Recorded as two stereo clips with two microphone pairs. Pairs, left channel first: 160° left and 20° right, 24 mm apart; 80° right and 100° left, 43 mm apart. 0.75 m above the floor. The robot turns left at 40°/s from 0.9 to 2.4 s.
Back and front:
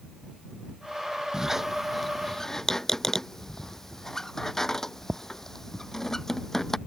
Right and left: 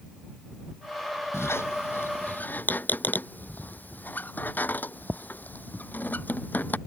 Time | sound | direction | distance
1.3 | a squeak | 85° right | ?